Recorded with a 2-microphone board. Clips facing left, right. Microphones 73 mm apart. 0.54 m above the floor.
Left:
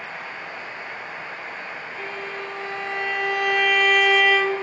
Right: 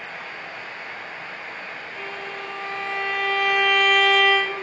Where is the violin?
10° left (ahead or behind), 3 m.